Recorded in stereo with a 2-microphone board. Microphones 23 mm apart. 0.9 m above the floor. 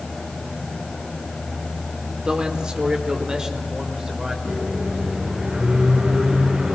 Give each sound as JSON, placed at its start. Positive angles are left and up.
{"t": 2.2, "sound": "a man speaking", "side_deg": -45, "distance_m": 2.5}
{"t": 4.5, "sound": "a microwave", "side_deg": -45, "distance_m": 8.5}